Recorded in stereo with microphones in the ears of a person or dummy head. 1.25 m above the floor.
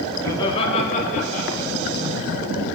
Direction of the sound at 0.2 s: 15° left (ahead or behind).